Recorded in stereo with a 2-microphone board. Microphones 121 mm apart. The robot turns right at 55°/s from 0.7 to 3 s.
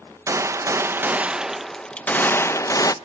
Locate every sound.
0.3 s a gunshot: 50° right, 0.6 m; by 2.9 s 75° left, 0.6 m